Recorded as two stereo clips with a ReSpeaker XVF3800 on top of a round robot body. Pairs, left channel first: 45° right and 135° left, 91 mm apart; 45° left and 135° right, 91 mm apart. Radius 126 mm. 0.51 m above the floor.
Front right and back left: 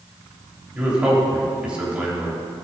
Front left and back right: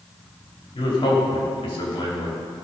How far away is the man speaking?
About 3 m.